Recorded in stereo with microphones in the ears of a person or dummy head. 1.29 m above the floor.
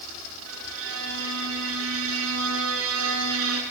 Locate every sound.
0.5 s a violin: 75° right (ahead or behind), 7 m